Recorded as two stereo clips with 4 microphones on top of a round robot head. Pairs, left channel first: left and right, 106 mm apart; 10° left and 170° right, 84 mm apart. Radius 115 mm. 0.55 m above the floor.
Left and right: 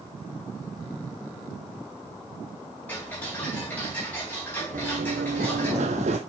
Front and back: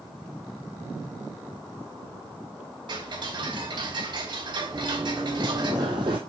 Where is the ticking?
165° left, 3.5 m.